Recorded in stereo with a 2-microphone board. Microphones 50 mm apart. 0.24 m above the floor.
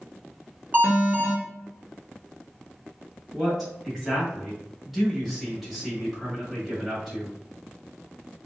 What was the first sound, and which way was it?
An alarm, 40° right (ahead or behind).